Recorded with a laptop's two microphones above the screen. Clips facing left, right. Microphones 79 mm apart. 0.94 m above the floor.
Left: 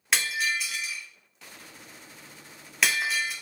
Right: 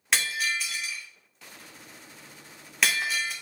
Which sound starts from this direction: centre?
Breaking glass, at 0.1 s.